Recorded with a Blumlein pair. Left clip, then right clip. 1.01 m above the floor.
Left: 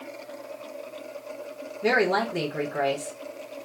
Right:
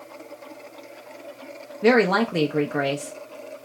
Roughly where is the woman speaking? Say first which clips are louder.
Right 4 dB; ahead right.